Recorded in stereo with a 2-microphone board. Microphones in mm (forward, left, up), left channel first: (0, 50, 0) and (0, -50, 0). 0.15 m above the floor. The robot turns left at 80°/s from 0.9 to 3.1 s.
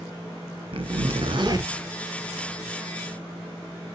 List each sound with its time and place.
0.7 s a zipper: 80° right, 0.5 m; by 1.7 s 145° right, 0.5 m